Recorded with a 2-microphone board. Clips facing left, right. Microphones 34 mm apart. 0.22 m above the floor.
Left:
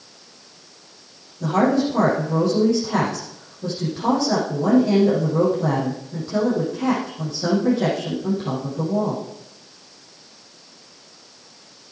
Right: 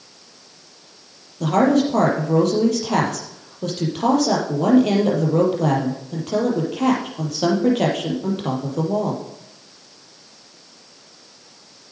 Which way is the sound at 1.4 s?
80° right.